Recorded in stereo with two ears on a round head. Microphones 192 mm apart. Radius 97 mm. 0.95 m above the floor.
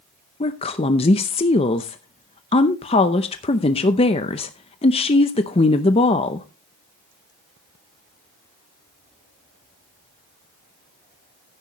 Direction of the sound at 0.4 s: 25° left (ahead or behind).